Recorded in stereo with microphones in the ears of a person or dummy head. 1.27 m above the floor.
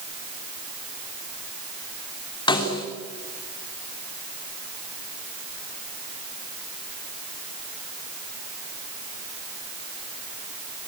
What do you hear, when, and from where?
2.5 s a snare drum: 30° left (ahead or behind), 3 m